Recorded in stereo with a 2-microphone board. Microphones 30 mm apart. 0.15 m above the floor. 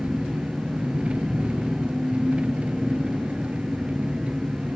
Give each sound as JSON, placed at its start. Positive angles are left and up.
{"t": 0.0, "sound": "an engine running", "side_deg": -35, "distance_m": 0.7}